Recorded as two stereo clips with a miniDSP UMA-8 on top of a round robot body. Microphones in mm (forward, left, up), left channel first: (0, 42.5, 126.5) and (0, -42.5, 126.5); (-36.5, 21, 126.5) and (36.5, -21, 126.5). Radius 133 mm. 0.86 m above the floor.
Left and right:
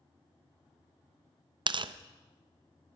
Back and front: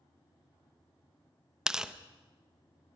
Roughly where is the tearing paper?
Right.